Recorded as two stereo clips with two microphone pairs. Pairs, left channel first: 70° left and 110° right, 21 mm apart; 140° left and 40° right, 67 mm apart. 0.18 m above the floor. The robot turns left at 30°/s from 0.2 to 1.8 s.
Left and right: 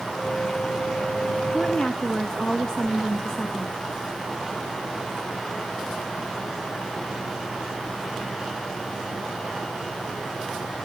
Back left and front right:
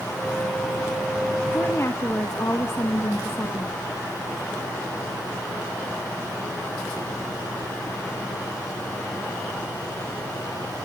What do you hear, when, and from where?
1.5 s a woman speaking: 120° left, 1.8 m; by 3.7 s 115° left, 1.8 m